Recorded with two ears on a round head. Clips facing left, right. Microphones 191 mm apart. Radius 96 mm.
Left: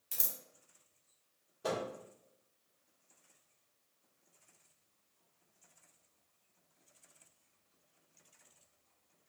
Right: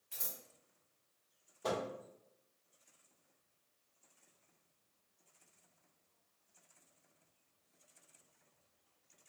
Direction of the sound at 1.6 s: 10° left (ahead or behind).